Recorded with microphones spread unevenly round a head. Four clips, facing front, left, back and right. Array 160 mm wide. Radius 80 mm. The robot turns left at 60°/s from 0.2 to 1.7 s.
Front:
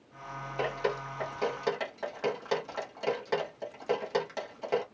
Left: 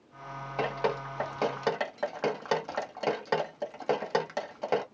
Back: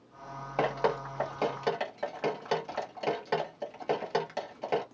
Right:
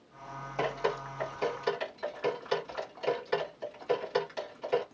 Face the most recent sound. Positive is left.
turn(degrees=105)